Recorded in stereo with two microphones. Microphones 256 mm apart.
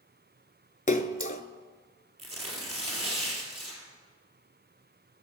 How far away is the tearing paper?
About 2.5 m.